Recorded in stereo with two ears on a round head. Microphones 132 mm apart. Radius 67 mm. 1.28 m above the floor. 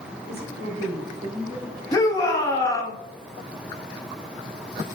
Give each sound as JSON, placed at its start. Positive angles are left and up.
{"t": 0.3, "sound": "a woman speaking", "side_deg": -65, "distance_m": 4.0}
{"t": 1.9, "sound": "a shout", "side_deg": 20, "distance_m": 2.0}